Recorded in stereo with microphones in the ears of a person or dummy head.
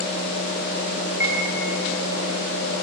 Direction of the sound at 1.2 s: 10° right (ahead or behind).